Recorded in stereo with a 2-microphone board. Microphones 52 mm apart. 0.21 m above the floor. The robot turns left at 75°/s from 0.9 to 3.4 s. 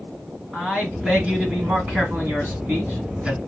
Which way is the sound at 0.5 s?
Straight ahead.